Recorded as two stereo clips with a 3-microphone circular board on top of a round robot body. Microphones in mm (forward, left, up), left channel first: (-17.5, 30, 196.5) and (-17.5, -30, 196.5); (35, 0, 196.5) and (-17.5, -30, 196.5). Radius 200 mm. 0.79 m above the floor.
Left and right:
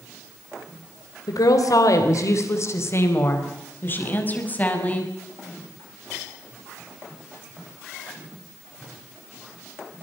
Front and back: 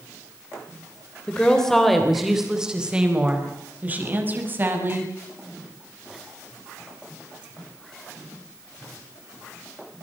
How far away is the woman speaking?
About 3.5 m.